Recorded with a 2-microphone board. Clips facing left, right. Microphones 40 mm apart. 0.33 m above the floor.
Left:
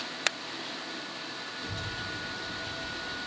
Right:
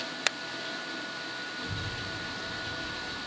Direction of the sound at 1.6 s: 25° right (ahead or behind).